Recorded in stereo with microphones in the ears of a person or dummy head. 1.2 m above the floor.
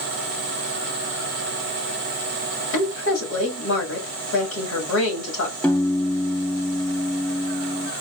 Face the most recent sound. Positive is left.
turn(degrees=5)  # may be behind; listen again after turning